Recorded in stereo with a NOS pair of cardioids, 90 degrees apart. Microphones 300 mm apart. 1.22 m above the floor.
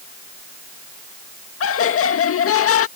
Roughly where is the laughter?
Ahead left.